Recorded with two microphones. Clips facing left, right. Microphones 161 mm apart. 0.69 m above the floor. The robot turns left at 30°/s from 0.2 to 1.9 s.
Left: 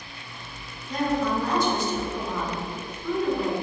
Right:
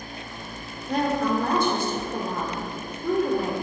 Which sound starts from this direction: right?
A woman speaking, at 0.9 s.